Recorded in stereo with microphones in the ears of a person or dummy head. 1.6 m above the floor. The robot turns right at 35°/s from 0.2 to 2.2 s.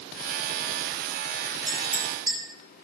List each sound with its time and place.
1.7 s a clink: 25° right (ahead or behind), 7 m; by 2.4 s 10° right (ahead or behind), 7 m